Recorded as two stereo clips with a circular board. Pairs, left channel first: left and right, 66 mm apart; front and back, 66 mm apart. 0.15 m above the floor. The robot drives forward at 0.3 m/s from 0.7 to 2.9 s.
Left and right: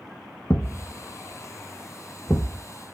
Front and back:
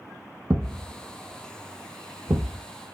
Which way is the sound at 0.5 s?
120° left.